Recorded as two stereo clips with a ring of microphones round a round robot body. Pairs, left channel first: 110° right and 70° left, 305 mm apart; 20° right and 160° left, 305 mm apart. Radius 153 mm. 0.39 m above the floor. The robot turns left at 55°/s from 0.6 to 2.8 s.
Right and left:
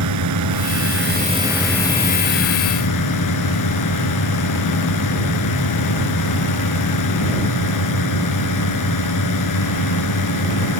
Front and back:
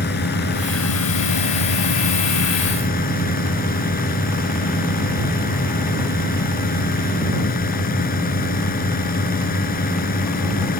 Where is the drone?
35° left; by 10.8 s 85° right.